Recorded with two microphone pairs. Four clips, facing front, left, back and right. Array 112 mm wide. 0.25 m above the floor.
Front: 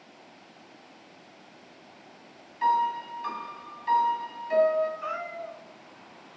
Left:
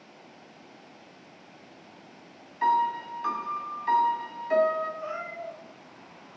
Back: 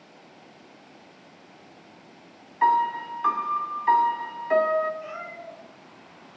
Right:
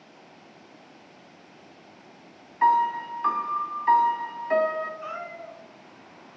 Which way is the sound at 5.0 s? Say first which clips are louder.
Left 1 dB, front 3 dB; 20° right.